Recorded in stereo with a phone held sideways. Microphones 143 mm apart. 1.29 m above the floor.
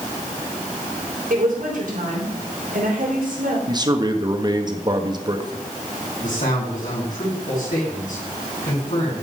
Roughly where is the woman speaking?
Right.